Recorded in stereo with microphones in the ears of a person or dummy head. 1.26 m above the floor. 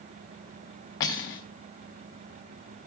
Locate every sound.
1.0 s cutlery clinking: 20° left (ahead or behind), 0.6 m